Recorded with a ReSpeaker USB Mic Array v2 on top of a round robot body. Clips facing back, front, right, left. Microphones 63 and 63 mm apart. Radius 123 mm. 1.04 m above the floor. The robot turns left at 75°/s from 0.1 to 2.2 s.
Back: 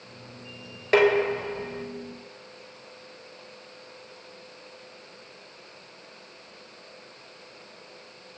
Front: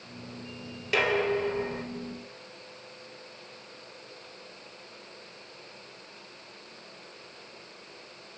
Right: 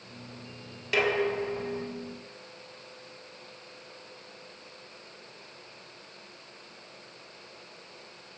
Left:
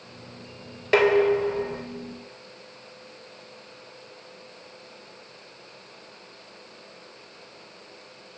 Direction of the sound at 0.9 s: 135° left.